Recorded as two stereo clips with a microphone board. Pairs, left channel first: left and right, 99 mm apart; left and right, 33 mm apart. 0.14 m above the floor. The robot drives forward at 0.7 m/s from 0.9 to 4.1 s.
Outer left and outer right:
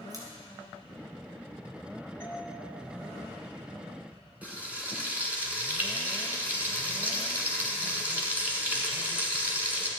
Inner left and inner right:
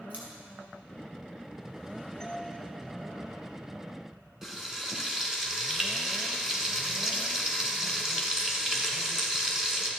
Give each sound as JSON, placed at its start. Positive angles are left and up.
{"t": 0.1, "sound": "scissors", "side_deg": -40, "distance_m": 2.5}
{"t": 2.2, "sound": "a doorbell", "side_deg": 20, "distance_m": 2.0}
{"t": 4.4, "sound": "frying", "side_deg": -15, "distance_m": 1.6}